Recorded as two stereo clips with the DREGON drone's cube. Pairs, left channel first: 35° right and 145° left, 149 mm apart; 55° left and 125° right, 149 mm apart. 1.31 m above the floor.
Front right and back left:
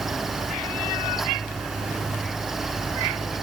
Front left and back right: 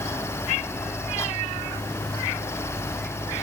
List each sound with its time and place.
Only background noise.